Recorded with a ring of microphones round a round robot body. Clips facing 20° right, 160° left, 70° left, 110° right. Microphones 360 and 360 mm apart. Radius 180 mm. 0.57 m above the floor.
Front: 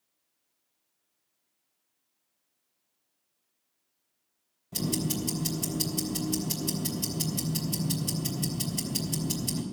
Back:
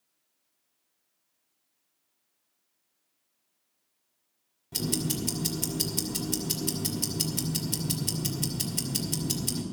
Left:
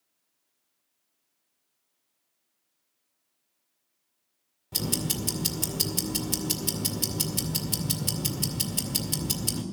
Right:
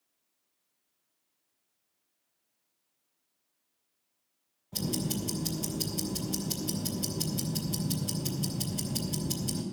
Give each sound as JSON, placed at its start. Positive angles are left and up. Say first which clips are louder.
{"t": 4.7, "sound": "ticking", "louder": "front 1 dB, left 1 dB", "azimuth_deg": 85, "distance_m": 2.0}